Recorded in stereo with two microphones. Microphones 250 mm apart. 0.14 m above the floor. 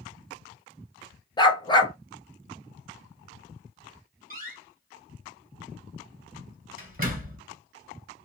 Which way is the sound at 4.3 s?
35° right (ahead or behind).